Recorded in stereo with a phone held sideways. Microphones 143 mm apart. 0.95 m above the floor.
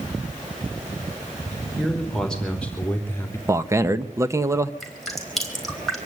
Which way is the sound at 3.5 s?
20° right (ahead or behind).